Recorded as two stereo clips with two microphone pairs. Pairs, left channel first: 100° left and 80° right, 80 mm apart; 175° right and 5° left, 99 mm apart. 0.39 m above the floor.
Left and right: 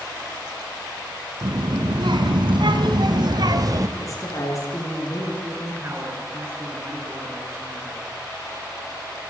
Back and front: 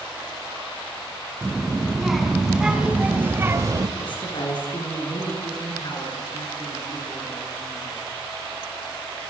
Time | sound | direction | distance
1.4 | a child speaking | 90° right | 4.5 m
4.0 | a woman speaking | 145° left | 8.5 m
5.4 | a man speaking | 140° right | 7 m